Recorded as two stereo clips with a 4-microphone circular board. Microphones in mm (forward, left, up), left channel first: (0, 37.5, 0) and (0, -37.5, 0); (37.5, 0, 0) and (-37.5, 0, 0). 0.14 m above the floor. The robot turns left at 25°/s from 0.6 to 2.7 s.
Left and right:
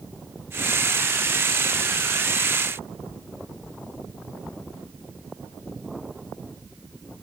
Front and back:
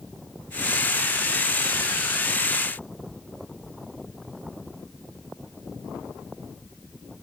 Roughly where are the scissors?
I don't hear scissors.